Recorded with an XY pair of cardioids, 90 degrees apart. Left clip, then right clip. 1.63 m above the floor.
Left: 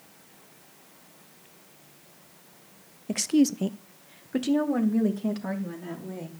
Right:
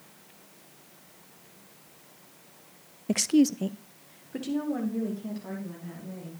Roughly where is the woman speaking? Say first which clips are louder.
Even; ahead right.